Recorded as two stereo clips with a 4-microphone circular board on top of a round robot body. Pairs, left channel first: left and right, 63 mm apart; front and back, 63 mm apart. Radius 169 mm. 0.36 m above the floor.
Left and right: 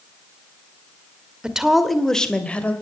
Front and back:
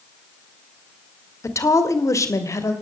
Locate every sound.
1.4 s a woman speaking: 15° right, 2 m; by 2.7 s 25° left, 3 m